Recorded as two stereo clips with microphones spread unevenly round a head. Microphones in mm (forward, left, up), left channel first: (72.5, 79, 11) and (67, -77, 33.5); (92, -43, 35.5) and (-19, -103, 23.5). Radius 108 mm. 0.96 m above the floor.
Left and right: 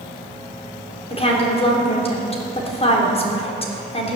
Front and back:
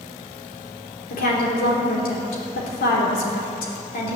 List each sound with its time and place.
1.1 s a woman speaking: 35° left, 3 m